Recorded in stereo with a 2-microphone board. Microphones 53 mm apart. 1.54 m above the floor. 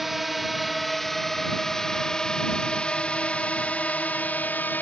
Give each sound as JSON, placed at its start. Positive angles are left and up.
{"t": 0.0, "sound": "a drone", "side_deg": -5}